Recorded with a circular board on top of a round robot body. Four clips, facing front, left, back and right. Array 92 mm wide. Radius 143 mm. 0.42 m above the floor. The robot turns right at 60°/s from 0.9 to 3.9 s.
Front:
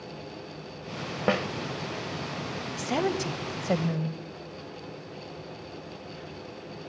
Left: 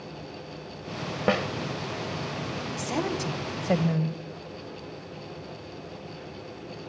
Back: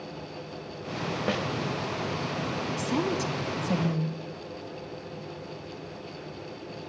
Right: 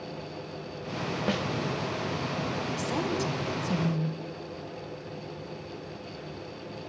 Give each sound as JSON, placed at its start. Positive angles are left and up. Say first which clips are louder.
{"t": 1.3, "sound": "a snare drum", "louder": "left 7 dB, front 5 dB", "azimuth_deg": 45, "distance_m": 1.3}
{"t": 2.8, "sound": "a woman speaking", "louder": "left 2 dB, front 2 dB", "azimuth_deg": 0, "distance_m": 2.5}